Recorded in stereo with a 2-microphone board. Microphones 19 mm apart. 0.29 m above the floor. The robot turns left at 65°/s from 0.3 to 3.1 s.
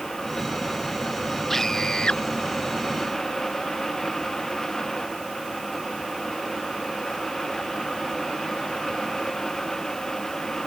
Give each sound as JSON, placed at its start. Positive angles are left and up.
{"t": 1.5, "sound": "a scream", "azimuth_deg": 165}